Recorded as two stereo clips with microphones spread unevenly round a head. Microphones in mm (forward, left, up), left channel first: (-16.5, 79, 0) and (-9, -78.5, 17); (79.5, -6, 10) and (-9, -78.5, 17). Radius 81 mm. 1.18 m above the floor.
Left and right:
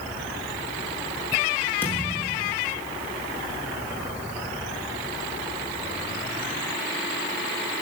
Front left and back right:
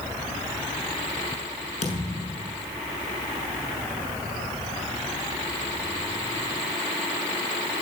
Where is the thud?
15° left, 6.5 m.